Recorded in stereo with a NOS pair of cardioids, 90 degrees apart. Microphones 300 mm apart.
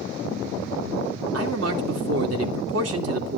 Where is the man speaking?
55° right, 2.5 m.